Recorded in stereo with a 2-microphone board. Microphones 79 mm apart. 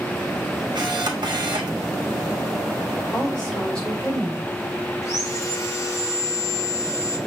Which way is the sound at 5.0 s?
40° left (ahead or behind).